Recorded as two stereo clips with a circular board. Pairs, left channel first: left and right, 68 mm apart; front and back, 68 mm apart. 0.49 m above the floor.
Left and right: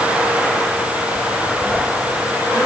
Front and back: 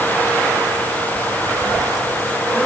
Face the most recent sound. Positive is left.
No sound to turn to.